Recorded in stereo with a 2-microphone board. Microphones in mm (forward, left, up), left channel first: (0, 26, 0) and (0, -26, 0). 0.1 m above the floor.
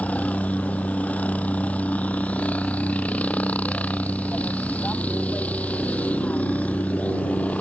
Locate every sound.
0.0 s a helicopter: 30° left (ahead or behind)